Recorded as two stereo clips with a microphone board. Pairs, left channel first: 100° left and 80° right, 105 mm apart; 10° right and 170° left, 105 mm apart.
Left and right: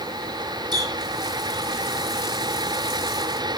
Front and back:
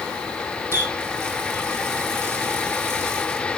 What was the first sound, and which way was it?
A running tap, 125° right.